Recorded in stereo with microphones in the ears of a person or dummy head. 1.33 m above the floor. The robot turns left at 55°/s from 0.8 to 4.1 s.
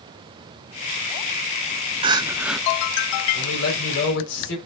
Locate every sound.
2.0 s crying: 150° right, 0.8 m; by 2.6 s straight behind, 0.8 m
3.3 s a man speaking: 110° left, 5 m; by 4.6 s 70° left, 5 m